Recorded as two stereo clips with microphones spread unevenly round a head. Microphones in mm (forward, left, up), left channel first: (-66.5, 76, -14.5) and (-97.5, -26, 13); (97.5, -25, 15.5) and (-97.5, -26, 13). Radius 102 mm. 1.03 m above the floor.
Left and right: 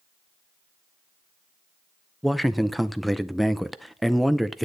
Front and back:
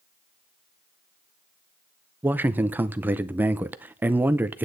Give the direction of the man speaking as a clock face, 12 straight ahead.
8 o'clock.